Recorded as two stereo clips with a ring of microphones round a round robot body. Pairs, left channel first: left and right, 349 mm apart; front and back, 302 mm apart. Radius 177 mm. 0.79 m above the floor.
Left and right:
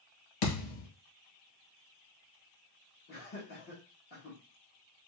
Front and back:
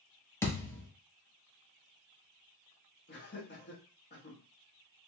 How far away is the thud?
About 1.7 m.